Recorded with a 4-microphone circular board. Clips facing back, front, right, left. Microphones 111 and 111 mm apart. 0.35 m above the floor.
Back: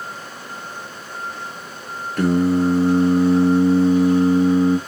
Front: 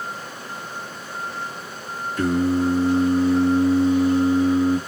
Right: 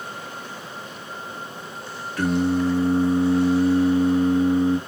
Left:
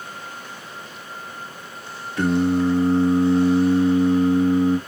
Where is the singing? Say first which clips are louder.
Back 3 dB, left 2 dB; 155° left, 2 m.